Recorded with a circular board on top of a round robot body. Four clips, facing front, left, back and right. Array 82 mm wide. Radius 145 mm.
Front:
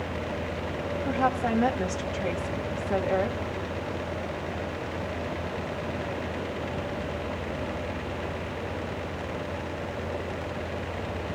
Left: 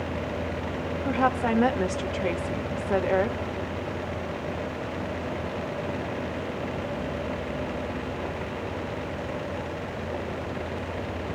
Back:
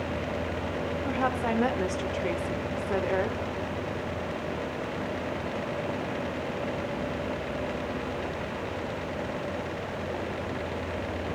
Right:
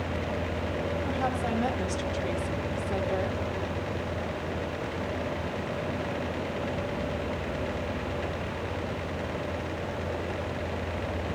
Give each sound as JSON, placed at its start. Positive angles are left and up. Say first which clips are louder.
{"t": 1.1, "sound": "a woman speaking", "louder": "left 9 dB, front 3 dB", "azimuth_deg": 100, "distance_m": 2.0}